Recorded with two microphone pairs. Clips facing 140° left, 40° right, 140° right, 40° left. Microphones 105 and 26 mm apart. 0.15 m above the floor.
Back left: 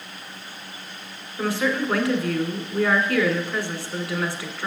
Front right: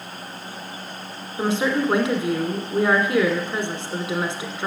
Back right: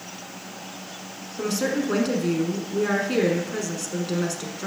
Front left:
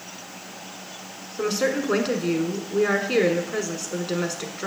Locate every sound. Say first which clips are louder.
1.4 s a woman speaking: front right 2 dB, front left 1 dB; 10° right, 1.2 m